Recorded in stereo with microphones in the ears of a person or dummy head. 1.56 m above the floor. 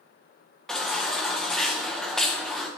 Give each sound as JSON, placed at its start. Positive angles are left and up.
{"t": 0.7, "sound": "a baby crying", "side_deg": 5, "distance_m": 0.5}